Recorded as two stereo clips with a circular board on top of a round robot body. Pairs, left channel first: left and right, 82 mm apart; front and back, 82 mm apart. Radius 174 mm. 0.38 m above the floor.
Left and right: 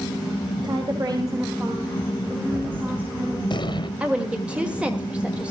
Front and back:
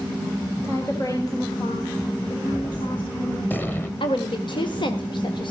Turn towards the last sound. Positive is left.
turn(degrees=-15)